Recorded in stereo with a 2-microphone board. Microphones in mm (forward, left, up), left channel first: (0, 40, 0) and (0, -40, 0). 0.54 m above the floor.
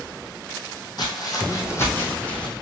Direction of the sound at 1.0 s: 55° left (ahead or behind).